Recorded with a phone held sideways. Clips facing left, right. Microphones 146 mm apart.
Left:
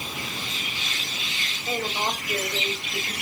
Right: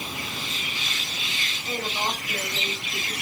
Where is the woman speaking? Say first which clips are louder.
Left 2 dB; 25° left (ahead or behind), 4.5 m; by 3.1 s 15° left (ahead or behind), 3.5 m.